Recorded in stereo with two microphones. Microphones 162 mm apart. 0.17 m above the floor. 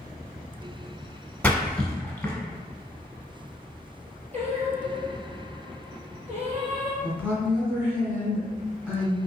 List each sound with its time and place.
1.4 s a splash: 10° left (ahead or behind), 0.8 m
4.3 s singing: 45° right (ahead or behind), 1.4 m
7.0 s a woman speaking: 15° right (ahead or behind), 1.5 m